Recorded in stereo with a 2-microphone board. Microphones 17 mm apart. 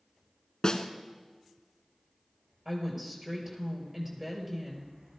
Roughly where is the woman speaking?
Centre.